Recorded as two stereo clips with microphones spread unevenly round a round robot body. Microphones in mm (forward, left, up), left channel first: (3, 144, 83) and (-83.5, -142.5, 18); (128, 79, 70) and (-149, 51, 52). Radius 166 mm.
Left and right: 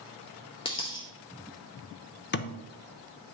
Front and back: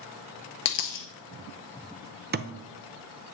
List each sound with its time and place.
0.7 s a dropped coin: 5° left, 0.7 m
2.3 s a thud: 135° left, 0.6 m